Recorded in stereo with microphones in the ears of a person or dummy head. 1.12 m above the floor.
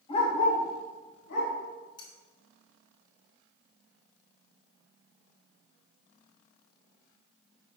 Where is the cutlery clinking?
25° left (ahead or behind), 1.8 m.